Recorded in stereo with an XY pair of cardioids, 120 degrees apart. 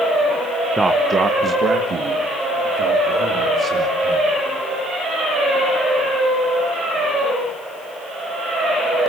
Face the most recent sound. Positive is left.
turn(degrees=-60)